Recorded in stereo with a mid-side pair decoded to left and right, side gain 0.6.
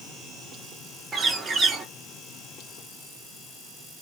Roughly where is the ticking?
I don't hear ticking.